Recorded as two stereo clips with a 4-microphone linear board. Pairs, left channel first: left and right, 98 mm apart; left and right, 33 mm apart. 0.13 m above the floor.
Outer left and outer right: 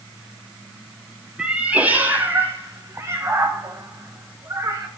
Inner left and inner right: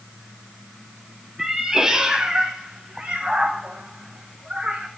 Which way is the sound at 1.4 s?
10° right (ahead or behind).